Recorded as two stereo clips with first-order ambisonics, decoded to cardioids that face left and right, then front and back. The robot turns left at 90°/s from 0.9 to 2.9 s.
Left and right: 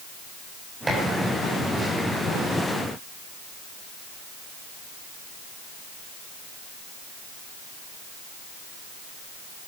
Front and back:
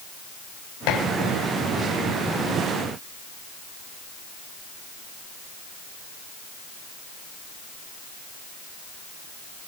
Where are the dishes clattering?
10° right, 6 m; by 1.0 s 20° right, 6 m.